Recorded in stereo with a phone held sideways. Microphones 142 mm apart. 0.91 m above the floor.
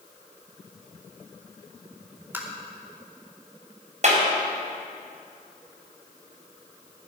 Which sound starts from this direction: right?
A clap, at 4.0 s.